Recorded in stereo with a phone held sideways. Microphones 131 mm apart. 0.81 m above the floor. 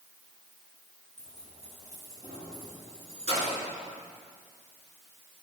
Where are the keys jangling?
60° right (ahead or behind), 6 m; by 3.6 s 50° right (ahead or behind), 8.5 m.